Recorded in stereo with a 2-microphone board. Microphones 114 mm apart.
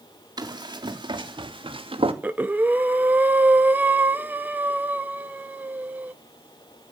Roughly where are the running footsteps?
Right.